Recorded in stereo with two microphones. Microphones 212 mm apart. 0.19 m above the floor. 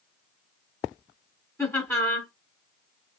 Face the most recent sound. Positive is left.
turn(degrees=15)  # may be behind; listen again after turning